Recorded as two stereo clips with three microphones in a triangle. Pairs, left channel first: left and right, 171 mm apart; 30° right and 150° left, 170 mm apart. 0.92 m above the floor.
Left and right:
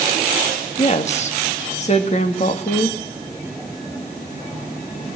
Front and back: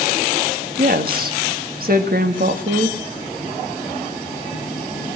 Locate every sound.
0.8 s a woman speaking: 135° left, 1.5 m